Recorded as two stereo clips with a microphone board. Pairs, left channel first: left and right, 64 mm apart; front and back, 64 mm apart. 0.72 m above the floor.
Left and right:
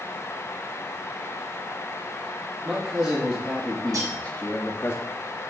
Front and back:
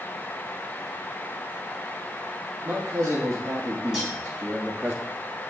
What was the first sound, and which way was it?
A man speaking, 130° right.